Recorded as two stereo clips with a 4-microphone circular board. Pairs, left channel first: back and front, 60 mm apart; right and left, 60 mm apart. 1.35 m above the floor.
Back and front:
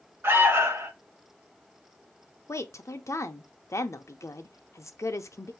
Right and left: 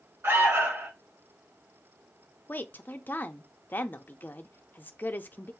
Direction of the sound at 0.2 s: 50° left.